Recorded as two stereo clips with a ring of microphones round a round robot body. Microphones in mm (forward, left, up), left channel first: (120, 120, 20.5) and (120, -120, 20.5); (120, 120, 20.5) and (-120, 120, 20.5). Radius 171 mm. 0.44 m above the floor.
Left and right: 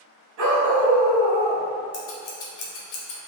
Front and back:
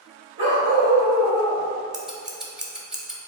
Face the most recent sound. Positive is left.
turn(degrees=95)